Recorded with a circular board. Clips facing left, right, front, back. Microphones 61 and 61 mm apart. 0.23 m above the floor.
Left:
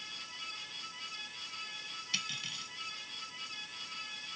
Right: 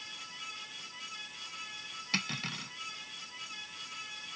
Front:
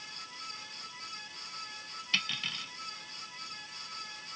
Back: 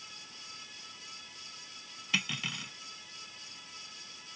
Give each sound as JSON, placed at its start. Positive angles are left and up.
{"t": 2.1, "sound": "cutlery clinking", "azimuth_deg": -105}